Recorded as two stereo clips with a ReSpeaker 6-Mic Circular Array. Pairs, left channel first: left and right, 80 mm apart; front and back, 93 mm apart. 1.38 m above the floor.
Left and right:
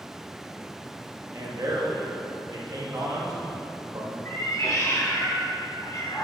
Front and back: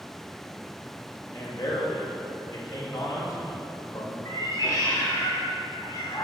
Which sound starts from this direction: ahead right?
A man speaking, at 1.3 s.